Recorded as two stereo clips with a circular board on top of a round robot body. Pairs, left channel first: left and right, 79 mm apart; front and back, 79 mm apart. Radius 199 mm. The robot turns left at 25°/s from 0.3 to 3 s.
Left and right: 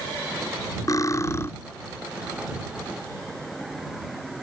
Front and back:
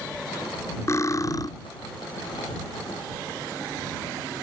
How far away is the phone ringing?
I don't hear a phone ringing.